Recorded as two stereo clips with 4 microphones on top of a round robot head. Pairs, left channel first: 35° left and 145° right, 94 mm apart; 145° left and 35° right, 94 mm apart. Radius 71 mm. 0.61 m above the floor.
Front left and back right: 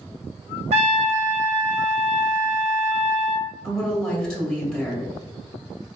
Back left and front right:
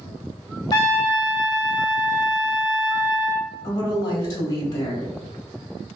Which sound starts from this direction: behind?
A trumpet, at 0.7 s.